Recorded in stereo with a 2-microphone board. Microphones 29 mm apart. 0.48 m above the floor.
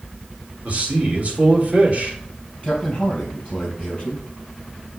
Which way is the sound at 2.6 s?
35° left (ahead or behind).